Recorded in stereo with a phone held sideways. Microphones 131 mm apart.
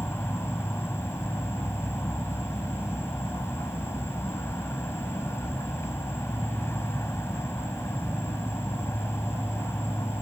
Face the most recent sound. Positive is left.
turn(degrees=20)  # may be behind; listen again after turning